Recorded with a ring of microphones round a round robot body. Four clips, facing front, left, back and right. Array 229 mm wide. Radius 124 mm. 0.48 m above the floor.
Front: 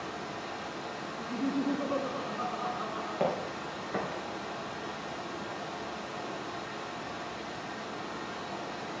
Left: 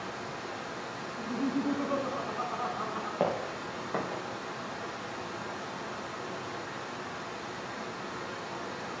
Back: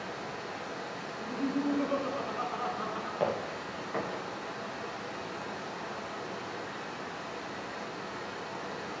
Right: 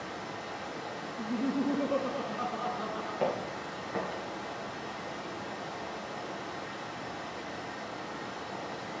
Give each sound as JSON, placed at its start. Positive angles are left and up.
{"t": 0.0, "sound": "running water", "azimuth_deg": 70, "distance_m": 5.0}
{"t": 1.2, "sound": "laughter", "azimuth_deg": 105, "distance_m": 4.5}
{"t": 3.2, "sound": "footsteps", "azimuth_deg": 70, "distance_m": 4.0}